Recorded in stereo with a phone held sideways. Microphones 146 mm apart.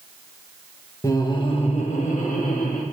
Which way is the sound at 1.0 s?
20° left (ahead or behind).